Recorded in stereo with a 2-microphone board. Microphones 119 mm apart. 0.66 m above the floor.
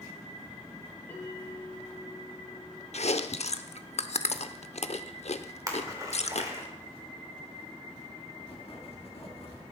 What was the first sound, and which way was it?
A bell, 15° left (ahead or behind).